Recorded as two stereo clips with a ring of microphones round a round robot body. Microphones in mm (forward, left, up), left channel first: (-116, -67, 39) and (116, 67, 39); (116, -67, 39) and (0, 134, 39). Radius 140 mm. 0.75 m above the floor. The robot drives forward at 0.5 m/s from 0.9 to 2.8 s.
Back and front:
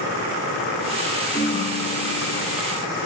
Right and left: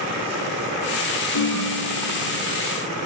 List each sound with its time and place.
1.3 s a ringtone: 70° right, 1.1 m; by 2.6 s 105° right, 1.0 m